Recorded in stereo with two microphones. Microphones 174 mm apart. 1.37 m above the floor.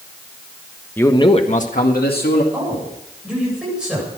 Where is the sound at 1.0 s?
10° left (ahead or behind), 1.2 m; by 2.4 s 70° left (ahead or behind), 2.5 m.